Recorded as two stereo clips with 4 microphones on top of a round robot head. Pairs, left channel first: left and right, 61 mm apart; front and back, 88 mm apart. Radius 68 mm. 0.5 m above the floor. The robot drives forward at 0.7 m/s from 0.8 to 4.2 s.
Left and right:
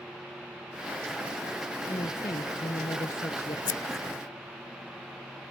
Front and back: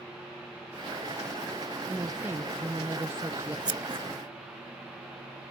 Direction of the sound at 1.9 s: 110° left.